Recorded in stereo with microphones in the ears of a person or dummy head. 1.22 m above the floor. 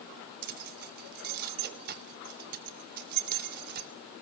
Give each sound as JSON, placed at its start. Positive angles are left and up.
{"t": 0.4, "sound": "keys jangling", "side_deg": -55, "distance_m": 0.8}